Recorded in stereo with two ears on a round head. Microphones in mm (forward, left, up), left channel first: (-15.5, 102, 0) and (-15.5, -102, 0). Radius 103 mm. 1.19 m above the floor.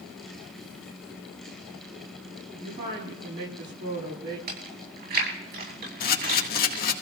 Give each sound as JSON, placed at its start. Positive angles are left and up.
{"t": 2.5, "sound": "a woman speaking", "side_deg": -55, "distance_m": 8.5}
{"t": 4.5, "sound": "chewing", "side_deg": -50, "distance_m": 8.5}
{"t": 6.0, "sound": "a camera shutter", "side_deg": 40, "distance_m": 1.8}